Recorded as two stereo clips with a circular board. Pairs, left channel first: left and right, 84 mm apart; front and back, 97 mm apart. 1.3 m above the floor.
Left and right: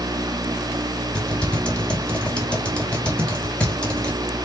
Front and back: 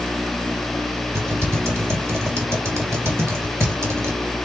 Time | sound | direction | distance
1.1 | typing on a keyboard | 155° left | 1.1 m